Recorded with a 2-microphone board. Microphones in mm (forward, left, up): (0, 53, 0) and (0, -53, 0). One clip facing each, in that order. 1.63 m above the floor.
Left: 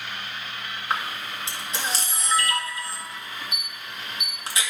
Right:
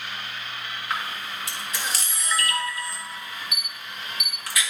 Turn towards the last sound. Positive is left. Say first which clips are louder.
# left 2 dB
turn(degrees=25)  # may be behind; listen again after turning